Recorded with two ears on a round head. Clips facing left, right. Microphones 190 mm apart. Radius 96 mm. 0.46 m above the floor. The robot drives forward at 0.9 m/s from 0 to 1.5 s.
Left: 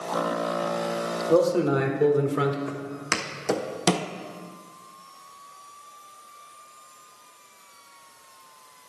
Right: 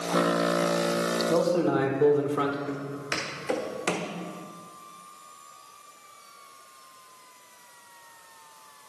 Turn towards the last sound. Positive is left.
turn(degrees=45)  # may be behind; listen again after turning